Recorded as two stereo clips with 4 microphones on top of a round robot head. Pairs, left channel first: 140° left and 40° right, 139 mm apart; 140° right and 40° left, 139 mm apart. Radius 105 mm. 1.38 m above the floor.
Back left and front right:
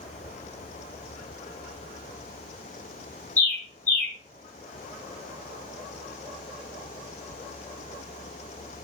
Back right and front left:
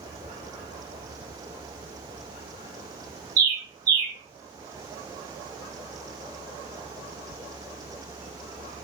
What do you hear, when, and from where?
3.4 s a bird: 65° left, 1.8 m